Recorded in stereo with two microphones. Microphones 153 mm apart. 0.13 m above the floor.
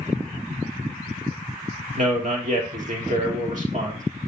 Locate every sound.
2.0 s a man speaking: 55° right (ahead or behind), 2.5 m